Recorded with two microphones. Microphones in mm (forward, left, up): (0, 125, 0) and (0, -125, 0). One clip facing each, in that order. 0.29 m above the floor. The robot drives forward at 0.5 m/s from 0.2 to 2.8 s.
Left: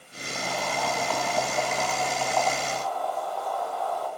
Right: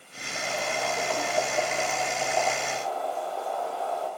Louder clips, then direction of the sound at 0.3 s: Even; 40° right (ahead or behind).